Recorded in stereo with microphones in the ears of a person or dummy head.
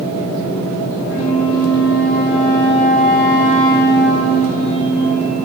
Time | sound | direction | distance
1.1 | a flute | 5° right (ahead or behind) | 2.5 m